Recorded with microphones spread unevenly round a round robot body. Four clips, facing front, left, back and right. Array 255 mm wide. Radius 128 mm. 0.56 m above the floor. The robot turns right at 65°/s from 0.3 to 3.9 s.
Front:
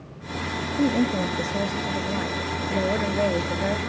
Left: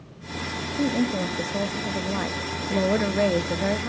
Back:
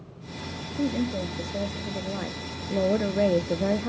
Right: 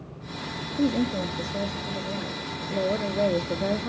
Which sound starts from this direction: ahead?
A woman speaking, at 0.8 s.